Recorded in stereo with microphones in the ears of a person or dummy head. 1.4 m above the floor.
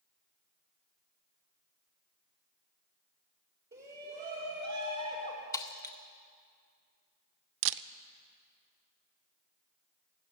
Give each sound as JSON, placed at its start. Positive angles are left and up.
{"t": 3.7, "sound": "a shout", "side_deg": -55, "distance_m": 3.5}
{"t": 5.5, "sound": "breaking glass", "side_deg": 20, "distance_m": 0.9}
{"t": 7.6, "sound": "a camera shutter", "side_deg": -65, "distance_m": 0.6}